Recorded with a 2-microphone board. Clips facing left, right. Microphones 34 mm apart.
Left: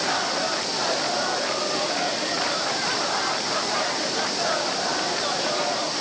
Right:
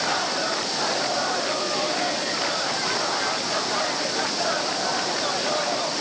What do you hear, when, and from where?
Only background noise.